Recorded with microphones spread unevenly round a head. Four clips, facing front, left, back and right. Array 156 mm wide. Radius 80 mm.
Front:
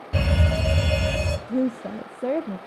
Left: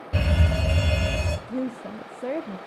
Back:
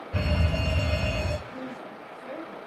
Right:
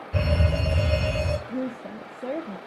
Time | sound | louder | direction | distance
0.1 | a fire alarm | right 1 dB, front 5 dB | 50° left | 5.5 m
1.5 | a woman speaking | left 1 dB, front 13 dB | 5° left | 0.5 m